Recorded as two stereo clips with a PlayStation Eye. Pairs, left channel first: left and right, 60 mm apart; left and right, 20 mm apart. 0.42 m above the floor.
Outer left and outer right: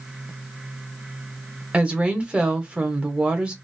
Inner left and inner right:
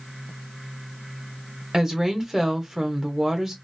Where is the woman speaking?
20° right (ahead or behind), 0.9 m.